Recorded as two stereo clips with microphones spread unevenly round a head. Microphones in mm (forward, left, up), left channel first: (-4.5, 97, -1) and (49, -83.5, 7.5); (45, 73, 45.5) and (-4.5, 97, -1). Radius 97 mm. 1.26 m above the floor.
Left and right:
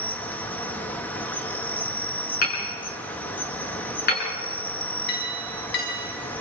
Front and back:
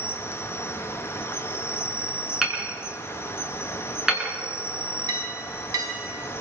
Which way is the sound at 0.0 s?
25° left.